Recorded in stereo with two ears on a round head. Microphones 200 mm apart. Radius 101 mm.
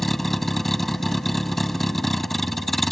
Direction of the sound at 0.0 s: Centre (ahead or behind).